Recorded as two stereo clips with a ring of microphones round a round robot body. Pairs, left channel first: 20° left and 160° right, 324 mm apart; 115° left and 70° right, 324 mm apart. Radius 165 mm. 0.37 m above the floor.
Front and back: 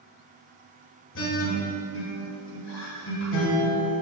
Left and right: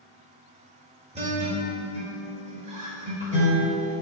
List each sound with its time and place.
1.1 s a guitar: 5° right, 2.0 m